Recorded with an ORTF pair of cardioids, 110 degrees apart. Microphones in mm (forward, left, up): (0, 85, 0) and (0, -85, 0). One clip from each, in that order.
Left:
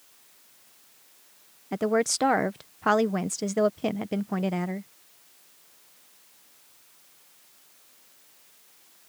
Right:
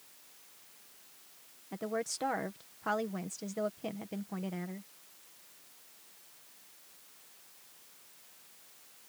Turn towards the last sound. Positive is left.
turn(degrees=55)